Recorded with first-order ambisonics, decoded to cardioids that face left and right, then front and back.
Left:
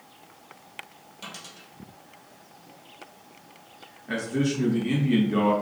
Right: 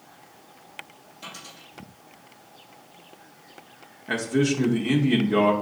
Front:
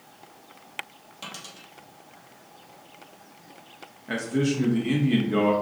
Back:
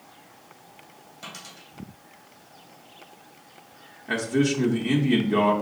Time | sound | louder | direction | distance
1.2 | a dropped coin | even, front 1 dB | 25° left | 2.5 m
4.1 | a man speaking | right 4 dB, back 3 dB | 110° right | 0.6 m